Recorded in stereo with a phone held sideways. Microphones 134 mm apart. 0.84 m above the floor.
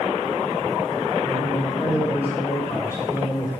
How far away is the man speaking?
About 2 m.